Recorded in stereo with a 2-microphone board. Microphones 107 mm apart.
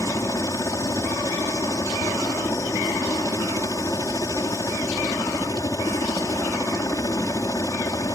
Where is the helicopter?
30° left (ahead or behind).